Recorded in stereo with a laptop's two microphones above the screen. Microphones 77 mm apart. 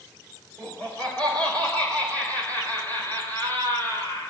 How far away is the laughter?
About 6.5 m.